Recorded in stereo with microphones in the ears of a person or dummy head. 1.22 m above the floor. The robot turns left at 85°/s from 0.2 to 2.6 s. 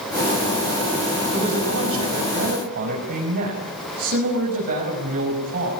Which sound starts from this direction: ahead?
A man speaking, at 1.3 s.